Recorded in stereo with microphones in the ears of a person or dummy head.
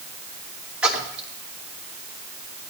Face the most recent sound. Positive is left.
turn(degrees=-5)  # may be behind; listen again after turning